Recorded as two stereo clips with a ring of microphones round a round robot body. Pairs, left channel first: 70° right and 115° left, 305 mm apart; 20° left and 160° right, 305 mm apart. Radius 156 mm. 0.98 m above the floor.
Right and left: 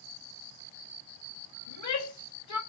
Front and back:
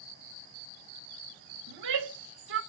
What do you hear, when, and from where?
1.7 s a shout: 105° right, 2.0 m